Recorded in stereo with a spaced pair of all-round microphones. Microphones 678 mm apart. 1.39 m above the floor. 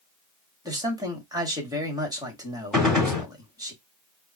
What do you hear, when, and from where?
0.7 s a man speaking: 5° right (ahead or behind), 1.8 m
2.7 s a gunshot: centre (ahead or behind), 2 m